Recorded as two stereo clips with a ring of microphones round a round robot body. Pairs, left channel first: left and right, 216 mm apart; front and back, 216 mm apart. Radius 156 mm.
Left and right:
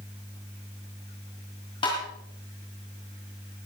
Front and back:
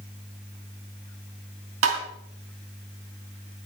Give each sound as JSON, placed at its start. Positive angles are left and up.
{"t": 1.8, "sound": "tapping", "azimuth_deg": 165, "distance_m": 3.0}